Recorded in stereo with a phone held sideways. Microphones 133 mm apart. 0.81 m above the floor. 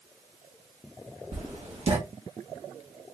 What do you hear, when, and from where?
1.3 s writing: 50° right (ahead or behind), 1.4 m